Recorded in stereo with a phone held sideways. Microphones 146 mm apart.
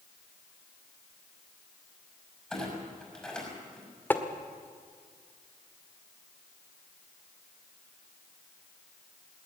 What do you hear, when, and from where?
2.5 s a clunk: 5° left (ahead or behind), 6 m
4.1 s tapping: 15° left (ahead or behind), 1.7 m